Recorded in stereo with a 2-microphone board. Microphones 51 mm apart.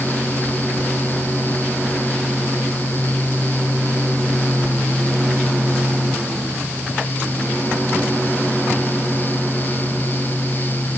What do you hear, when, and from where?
Only background noise.